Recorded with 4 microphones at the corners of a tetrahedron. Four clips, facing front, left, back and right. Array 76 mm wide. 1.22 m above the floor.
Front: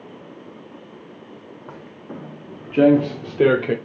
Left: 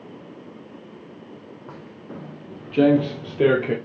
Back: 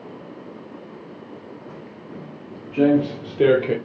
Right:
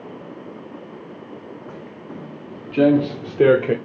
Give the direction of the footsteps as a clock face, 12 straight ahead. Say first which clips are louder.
Right 3 dB, front 1 dB; 12 o'clock.